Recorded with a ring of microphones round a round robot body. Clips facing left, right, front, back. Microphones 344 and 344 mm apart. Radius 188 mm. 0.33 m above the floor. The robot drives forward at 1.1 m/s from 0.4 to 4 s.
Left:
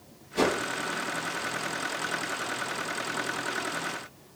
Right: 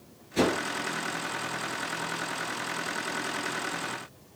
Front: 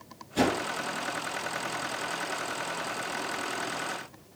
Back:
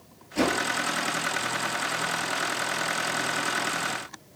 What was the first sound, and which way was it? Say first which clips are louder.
A whoosh: right 1 dB, back 1 dB; 50° right.